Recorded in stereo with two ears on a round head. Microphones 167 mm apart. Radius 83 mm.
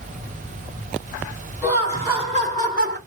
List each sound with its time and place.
1.6 s laughter: 15° right (ahead or behind), 1.0 m; by 3.0 s 55° right (ahead or behind), 1.0 m